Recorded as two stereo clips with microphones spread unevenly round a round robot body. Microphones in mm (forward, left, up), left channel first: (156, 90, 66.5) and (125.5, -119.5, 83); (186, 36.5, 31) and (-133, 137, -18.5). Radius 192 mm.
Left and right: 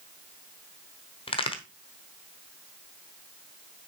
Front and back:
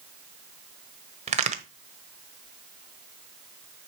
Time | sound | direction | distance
1.3 | a crack | 120° left | 1.0 m